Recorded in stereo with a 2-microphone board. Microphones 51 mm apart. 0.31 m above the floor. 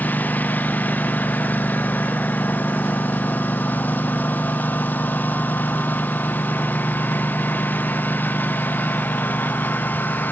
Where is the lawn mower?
35° left (ahead or behind).